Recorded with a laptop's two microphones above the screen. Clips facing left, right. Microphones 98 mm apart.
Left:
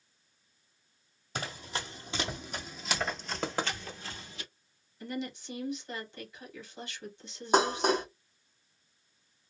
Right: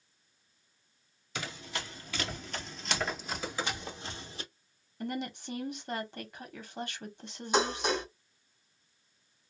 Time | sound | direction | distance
1.4 | running footsteps | 40° left (ahead or behind) | 1.4 m
3.4 | knocking | 60° left (ahead or behind) | 0.9 m
5.0 | a woman speaking | 60° right (ahead or behind) | 0.9 m
7.5 | dishes clattering | 45° left (ahead or behind) | 0.8 m